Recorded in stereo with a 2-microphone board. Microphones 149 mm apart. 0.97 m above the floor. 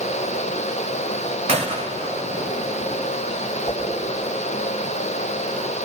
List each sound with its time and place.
1.5 s a gunshot: 45° right (ahead or behind), 1.8 m
3.7 s a whoosh: 35° left (ahead or behind), 7.5 m